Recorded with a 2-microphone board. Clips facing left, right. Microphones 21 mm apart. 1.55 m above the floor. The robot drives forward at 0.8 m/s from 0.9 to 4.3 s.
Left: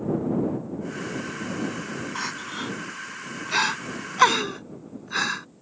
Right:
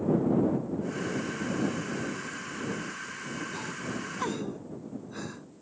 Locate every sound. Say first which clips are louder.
2.1 s crying: left 6 dB; 65° left (ahead or behind); by 5.5 s 55° left (ahead or behind)